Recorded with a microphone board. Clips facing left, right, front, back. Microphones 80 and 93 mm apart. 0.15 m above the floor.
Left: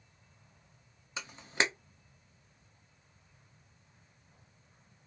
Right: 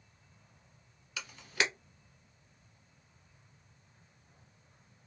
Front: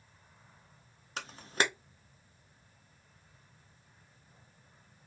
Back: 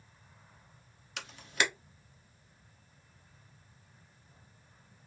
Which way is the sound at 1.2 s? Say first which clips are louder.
Left 2 dB, front 1 dB; 40° left.